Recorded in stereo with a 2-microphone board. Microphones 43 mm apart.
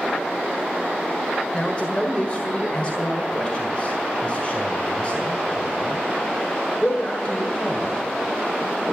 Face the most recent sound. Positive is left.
turn(degrees=30)  # may be behind; listen again after turning